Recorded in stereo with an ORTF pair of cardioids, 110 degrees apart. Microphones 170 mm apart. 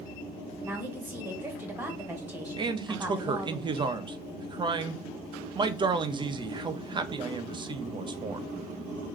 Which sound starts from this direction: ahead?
A woman speaking, at 0.6 s.